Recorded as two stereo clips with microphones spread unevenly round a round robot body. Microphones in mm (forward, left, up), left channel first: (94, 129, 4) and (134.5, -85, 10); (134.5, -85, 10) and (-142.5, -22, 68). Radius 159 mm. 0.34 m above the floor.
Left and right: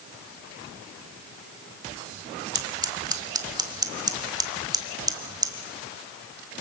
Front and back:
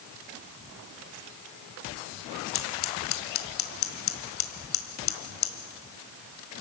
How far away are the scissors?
About 1.6 m.